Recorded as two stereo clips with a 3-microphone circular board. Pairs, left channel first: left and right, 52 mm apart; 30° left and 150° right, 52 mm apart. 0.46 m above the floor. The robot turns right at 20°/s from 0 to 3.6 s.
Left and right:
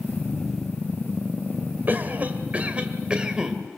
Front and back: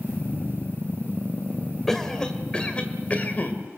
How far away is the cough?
About 1.8 m.